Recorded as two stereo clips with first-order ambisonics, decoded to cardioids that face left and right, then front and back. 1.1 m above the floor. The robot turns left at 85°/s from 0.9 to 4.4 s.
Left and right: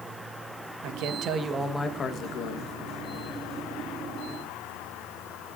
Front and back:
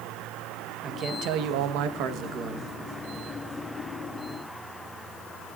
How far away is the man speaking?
About 1.3 m.